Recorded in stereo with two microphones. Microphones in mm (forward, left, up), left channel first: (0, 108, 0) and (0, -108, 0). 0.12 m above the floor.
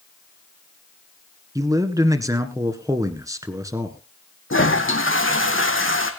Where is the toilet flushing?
70° left (ahead or behind), 2 m.